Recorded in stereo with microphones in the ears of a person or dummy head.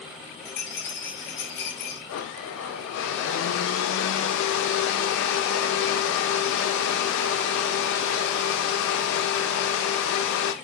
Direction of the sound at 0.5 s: 50° left (ahead or behind).